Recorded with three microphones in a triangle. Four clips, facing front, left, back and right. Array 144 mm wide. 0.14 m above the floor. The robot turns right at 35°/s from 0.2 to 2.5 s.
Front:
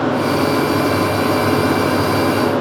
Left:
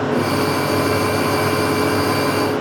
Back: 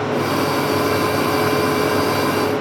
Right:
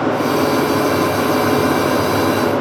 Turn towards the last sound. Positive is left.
No sound to turn to.